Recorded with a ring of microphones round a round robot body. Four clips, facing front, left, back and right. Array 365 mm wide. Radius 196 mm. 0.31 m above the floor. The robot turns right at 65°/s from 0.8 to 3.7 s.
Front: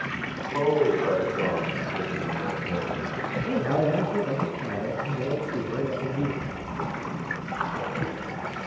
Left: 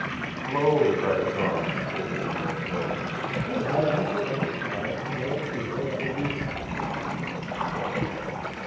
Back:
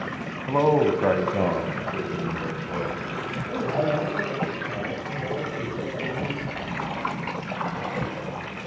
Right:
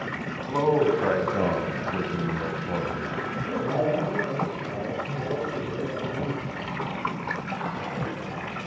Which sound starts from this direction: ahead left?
A splash, at 6.4 s.